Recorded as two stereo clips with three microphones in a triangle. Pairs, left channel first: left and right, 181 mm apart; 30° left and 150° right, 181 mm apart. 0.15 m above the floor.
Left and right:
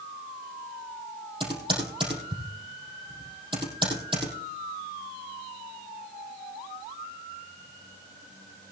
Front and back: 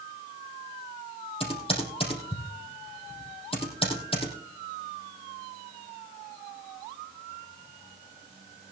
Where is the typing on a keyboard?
30° right, 4 m.